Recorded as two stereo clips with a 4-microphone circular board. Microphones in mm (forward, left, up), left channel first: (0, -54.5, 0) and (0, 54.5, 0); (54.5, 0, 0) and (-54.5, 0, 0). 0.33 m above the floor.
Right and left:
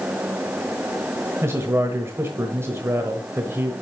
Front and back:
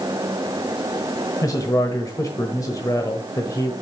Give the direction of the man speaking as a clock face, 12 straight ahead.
11 o'clock.